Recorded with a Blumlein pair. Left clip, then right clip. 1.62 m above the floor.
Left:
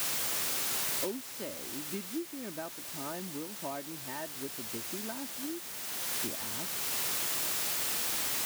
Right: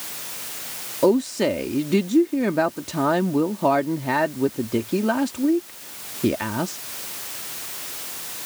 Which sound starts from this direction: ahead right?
A woman speaking, at 1.0 s.